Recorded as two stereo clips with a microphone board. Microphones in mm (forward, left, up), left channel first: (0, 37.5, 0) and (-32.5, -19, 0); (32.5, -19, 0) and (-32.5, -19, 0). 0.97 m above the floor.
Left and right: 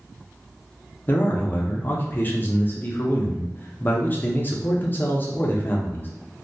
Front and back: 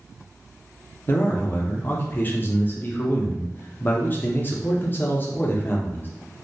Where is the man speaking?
30° left, 0.5 m.